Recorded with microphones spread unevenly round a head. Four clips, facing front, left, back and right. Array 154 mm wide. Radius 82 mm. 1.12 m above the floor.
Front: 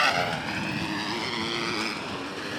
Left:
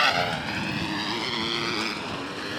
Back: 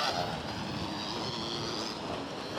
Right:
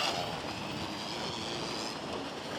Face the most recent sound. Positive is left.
turn(degrees=50)